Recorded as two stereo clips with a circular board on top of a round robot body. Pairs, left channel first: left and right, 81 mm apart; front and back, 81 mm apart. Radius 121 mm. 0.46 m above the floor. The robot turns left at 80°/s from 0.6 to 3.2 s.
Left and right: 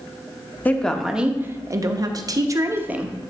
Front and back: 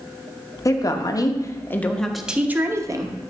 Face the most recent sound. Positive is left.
turn(degrees=-175)